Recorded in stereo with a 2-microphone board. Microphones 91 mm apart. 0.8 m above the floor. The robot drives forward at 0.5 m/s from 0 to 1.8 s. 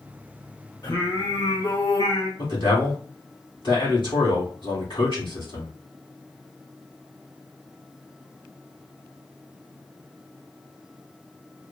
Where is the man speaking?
60° left (ahead or behind), 1.5 m.